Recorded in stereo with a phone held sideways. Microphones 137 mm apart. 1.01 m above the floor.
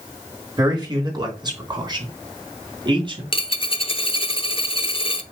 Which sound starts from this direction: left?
A dropped coin, at 3.3 s.